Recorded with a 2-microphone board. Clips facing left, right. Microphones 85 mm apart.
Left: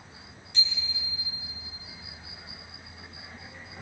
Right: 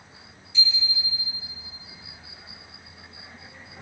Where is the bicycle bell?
65° left (ahead or behind), 7.5 m.